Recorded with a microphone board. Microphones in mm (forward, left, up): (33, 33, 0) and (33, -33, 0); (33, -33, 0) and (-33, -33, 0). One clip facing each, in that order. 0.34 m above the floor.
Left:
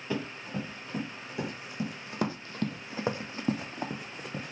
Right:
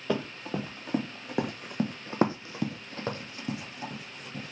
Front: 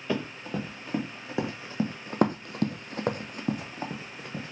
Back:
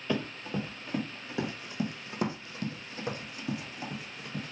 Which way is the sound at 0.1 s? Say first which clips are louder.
Right 4 dB, front 1 dB; 80° right.